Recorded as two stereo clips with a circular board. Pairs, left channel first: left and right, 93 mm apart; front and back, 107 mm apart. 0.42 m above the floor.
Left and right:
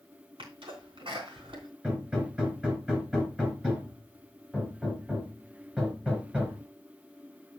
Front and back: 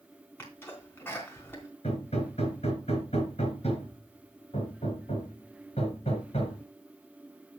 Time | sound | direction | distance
0.4 | a sneeze | 70° right | 3 m
1.8 | hammering | 10° right | 3.5 m